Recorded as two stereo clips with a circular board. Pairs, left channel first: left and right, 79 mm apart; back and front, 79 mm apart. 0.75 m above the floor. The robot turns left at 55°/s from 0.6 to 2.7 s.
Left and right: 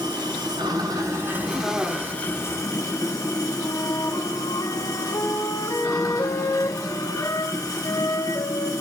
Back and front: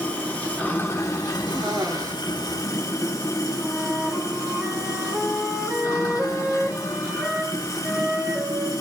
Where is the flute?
70° left, 2 m.